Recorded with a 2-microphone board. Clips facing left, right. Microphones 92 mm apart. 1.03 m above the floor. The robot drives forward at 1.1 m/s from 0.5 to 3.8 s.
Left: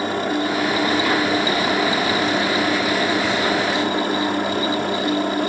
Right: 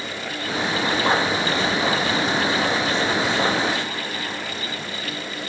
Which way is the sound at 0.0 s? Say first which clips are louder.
Left 9 dB; 55° left (ahead or behind).